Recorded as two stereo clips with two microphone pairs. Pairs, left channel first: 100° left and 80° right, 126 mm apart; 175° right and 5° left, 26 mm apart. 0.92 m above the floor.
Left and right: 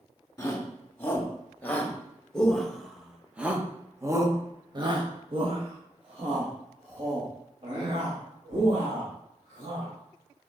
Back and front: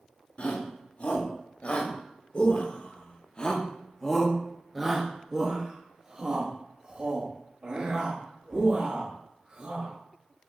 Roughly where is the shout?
Behind.